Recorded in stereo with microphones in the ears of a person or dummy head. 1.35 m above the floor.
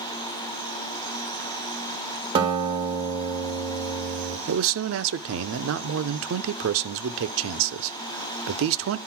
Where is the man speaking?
65° right (ahead or behind), 0.7 m.